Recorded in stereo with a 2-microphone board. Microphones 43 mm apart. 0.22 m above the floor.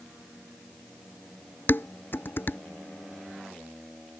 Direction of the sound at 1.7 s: 50° left (ahead or behind).